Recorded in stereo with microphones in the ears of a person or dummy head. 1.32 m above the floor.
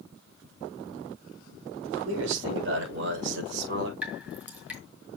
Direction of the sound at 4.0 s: 10° right (ahead or behind).